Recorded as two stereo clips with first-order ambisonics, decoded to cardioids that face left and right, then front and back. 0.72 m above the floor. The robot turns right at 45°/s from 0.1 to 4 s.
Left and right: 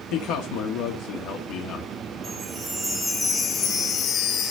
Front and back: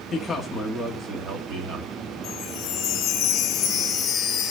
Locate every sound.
0.1 s a man speaking: 70° left, 1.5 m; by 1.9 s 150° left, 1.5 m
2.2 s a chime: 40° right, 1.0 m; by 4.5 s 40° left, 1.0 m